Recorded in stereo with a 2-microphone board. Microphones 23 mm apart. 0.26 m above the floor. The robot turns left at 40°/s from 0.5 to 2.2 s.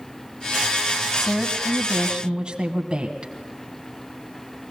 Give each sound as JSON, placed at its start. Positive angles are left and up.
{"t": 1.2, "sound": "a woman speaking", "azimuth_deg": -10, "distance_m": 1.5}